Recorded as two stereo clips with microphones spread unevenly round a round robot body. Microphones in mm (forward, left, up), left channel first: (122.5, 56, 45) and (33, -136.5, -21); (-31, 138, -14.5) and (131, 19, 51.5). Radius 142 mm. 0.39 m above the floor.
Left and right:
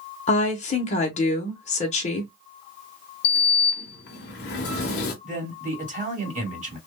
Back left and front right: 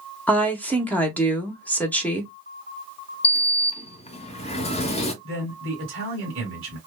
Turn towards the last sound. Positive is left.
turn(degrees=-80)